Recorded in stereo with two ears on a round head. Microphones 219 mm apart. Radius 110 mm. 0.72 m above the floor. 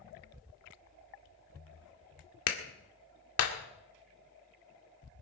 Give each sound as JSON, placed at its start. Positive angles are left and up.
{"t": 2.5, "sound": "a clap", "side_deg": 65, "distance_m": 1.9}